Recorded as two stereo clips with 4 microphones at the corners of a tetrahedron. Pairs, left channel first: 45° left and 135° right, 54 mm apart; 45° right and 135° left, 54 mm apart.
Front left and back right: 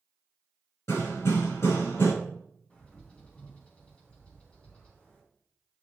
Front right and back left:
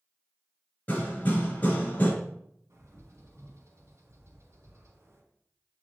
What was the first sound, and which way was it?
Hammering, 15° left.